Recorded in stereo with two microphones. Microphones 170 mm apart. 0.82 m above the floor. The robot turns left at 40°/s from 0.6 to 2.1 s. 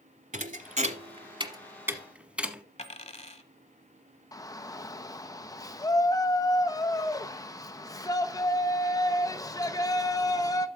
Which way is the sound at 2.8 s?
40° left (ahead or behind).